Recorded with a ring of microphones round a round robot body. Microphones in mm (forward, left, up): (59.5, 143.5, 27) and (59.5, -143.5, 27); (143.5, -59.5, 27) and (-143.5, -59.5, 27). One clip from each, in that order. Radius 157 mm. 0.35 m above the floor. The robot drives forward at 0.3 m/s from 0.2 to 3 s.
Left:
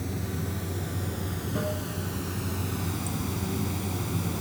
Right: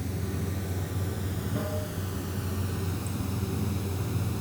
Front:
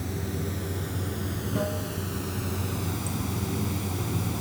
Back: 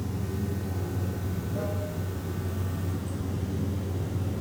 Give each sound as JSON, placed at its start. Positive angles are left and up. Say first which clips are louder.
{"t": 0.0, "sound": "running water", "louder": "left 1 dB, front 2 dB", "azimuth_deg": 10, "distance_m": 1.8}